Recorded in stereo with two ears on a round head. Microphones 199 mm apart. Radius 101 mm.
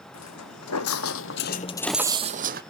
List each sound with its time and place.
0.1 s footsteps: 80° left, 2 m; by 2.6 s 45° right (ahead or behind), 1.2 m